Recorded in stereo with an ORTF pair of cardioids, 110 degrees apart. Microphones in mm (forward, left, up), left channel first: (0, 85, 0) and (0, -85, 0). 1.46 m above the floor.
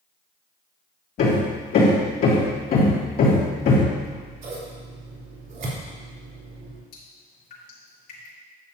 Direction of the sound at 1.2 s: 60° left.